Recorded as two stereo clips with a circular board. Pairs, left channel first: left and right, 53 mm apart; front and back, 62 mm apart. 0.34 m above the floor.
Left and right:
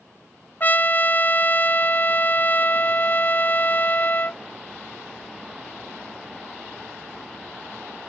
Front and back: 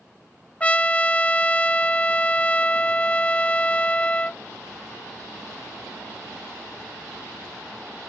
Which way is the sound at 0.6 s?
60° left.